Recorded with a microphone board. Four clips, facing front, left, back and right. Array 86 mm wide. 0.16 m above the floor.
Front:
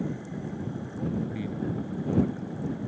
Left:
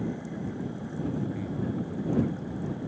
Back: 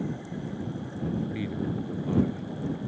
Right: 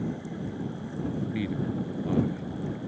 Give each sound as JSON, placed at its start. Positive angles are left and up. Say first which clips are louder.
{"t": 1.3, "sound": "a man speaking", "louder": "right 2 dB, back 1 dB", "azimuth_deg": -110}